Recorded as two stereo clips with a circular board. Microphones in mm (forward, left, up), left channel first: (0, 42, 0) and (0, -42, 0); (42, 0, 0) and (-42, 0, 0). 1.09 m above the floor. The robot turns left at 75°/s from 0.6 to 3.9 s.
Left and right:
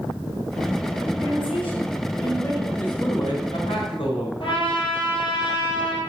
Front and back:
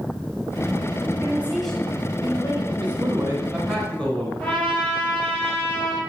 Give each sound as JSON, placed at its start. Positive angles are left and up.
{"t": 1.2, "sound": "a woman speaking", "azimuth_deg": 125, "distance_m": 6.5}
{"t": 2.8, "sound": "a man speaking", "azimuth_deg": 160, "distance_m": 4.5}
{"t": 4.4, "sound": "a trumpet", "azimuth_deg": 75, "distance_m": 5.5}